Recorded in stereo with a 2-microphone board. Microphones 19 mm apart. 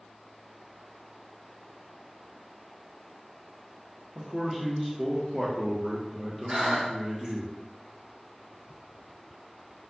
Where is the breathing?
55° right (ahead or behind), 1.6 m.